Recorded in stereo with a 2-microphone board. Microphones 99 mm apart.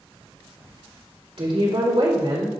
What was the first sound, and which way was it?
A woman speaking, 65° right (ahead or behind).